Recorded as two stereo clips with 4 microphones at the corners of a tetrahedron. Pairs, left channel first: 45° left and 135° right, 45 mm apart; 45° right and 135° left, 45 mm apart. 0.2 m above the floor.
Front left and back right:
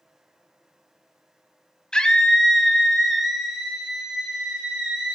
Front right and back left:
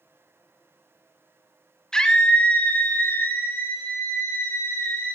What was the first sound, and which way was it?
A scream, straight ahead.